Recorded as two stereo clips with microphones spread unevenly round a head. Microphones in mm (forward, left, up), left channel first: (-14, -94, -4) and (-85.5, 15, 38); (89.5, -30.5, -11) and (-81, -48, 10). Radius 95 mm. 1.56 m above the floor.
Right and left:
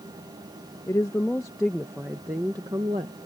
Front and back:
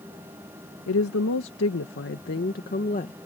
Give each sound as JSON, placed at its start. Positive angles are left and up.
{"t": 0.9, "sound": "a woman speaking", "azimuth_deg": 25}